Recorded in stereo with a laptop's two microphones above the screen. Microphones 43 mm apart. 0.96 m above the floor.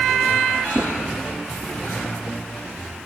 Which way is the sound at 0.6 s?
55° left (ahead or behind).